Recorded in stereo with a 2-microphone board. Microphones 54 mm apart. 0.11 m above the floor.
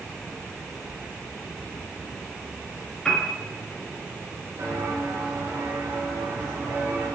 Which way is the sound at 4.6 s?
65° right (ahead or behind).